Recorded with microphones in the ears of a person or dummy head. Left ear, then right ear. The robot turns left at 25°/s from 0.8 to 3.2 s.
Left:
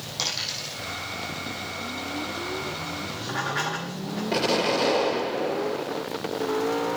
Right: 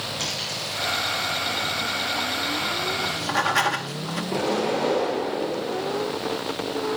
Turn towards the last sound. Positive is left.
turn(degrees=55)  # may be behind; listen again after turning